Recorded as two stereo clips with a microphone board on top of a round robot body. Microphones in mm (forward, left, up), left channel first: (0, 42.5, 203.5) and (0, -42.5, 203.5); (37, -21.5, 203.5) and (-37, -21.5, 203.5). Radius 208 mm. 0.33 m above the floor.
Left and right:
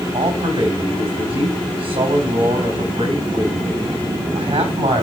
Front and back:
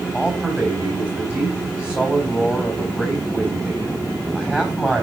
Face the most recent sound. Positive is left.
turn(degrees=-100)